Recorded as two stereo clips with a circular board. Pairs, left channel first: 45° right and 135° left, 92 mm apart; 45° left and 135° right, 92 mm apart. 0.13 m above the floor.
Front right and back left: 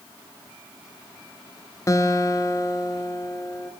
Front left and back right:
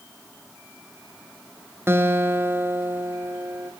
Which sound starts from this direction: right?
A guitar, at 1.9 s.